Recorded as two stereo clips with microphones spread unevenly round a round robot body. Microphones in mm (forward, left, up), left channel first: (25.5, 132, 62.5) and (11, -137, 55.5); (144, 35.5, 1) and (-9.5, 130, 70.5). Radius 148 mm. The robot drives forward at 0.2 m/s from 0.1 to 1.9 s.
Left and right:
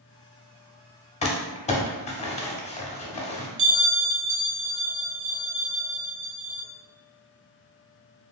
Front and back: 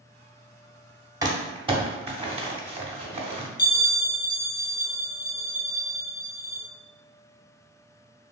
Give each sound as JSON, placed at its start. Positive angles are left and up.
{"t": 1.2, "sound": "crumpling", "azimuth_deg": 50, "distance_m": 0.8}
{"t": 3.6, "sound": "a bell", "azimuth_deg": -70, "distance_m": 0.8}